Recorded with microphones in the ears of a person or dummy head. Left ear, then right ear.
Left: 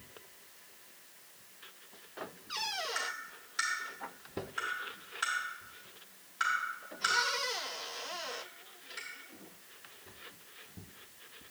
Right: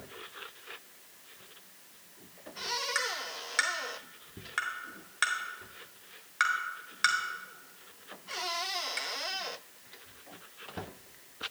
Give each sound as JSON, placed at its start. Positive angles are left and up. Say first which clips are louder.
{"t": 3.0, "sound": "tapping", "louder": "right 5 dB", "side_deg": -30, "distance_m": 1.3}